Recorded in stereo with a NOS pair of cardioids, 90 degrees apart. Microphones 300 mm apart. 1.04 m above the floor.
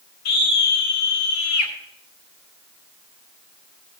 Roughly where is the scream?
Left.